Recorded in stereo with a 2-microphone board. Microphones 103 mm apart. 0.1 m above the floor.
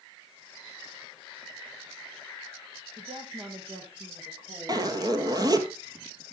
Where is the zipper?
40° right (ahead or behind), 1.5 m.